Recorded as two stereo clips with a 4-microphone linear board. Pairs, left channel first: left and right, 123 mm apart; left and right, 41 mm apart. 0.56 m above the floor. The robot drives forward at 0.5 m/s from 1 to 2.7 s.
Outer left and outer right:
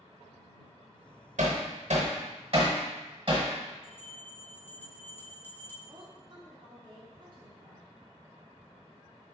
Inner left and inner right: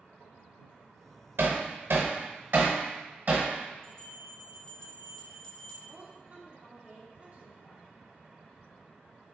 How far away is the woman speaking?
About 0.9 m.